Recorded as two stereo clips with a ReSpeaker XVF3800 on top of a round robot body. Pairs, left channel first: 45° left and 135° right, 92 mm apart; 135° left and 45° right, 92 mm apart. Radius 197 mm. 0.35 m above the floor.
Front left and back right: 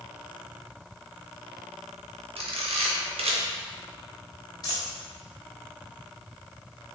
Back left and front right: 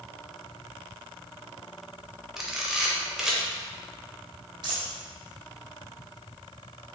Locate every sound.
2.4 s a camera shutter: 130° right, 0.8 m
4.6 s a dropped coin: 5° right, 0.7 m